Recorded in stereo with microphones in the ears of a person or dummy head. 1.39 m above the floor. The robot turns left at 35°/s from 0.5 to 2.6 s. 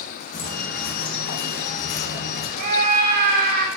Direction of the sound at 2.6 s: 50° right (ahead or behind).